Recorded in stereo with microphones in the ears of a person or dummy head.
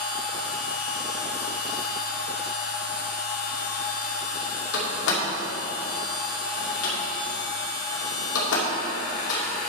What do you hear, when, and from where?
0.0 s a machine running: 50° left (ahead or behind), 1.0 m
4.7 s a door slam: 85° left, 2 m